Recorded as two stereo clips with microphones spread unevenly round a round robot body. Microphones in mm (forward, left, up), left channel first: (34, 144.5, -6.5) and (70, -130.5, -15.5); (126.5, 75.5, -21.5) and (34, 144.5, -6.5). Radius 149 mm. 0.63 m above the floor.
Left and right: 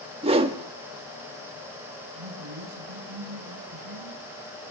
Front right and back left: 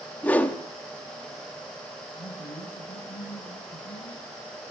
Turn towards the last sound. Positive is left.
turn(degrees=-75)